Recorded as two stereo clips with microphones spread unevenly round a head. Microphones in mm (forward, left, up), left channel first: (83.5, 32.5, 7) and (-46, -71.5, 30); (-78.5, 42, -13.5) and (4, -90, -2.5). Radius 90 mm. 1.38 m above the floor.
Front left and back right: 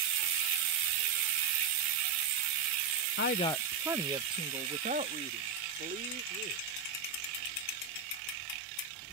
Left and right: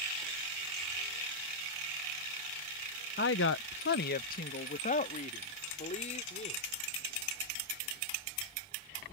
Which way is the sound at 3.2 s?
75° left.